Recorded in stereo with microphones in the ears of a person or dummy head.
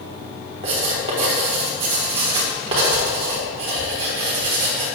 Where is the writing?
30° right (ahead or behind), 1.2 m.